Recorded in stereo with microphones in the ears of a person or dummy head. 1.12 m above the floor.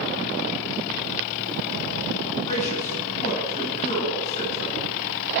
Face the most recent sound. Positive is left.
turn(degrees=40)  # may be behind; listen again after turning